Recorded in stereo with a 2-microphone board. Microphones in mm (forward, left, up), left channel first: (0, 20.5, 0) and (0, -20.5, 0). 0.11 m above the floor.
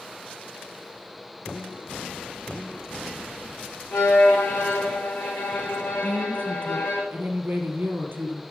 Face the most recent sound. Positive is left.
turn(degrees=-60)  # may be behind; listen again after turning